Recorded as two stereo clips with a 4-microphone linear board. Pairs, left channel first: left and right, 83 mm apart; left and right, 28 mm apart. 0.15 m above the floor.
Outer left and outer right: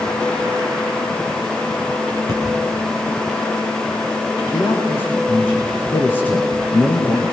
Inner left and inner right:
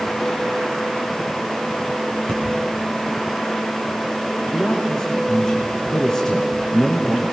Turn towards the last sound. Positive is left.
turn(degrees=25)  # may be behind; listen again after turning